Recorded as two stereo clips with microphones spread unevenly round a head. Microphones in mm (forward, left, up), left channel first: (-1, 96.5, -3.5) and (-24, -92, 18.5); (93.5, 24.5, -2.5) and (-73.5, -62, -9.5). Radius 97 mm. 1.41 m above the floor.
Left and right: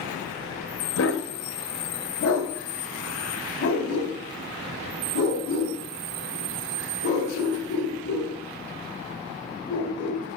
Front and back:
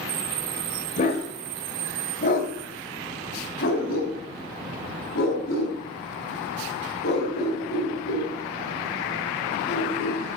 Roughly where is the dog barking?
Left.